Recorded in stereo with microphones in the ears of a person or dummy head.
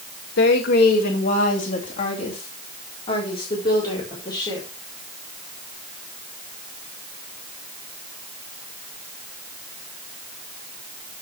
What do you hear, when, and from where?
0.4 s a woman speaking: 65° left (ahead or behind), 2.0 m; by 4.7 s 25° left (ahead or behind), 4.5 m